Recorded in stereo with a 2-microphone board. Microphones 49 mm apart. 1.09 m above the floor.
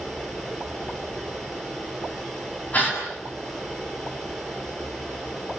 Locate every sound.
0.0 s running water: 15° left (ahead or behind), 9.5 m
2.7 s a gasp: 35° left (ahead or behind), 6.5 m